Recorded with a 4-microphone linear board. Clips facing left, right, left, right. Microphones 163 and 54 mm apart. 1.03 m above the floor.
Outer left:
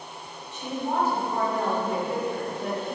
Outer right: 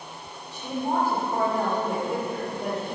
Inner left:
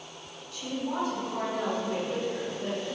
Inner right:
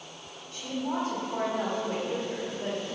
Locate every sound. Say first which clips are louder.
0.5 s a woman speaking: outer right 1 dB, inner right 1 dB; 35° right (ahead or behind), 1.1 m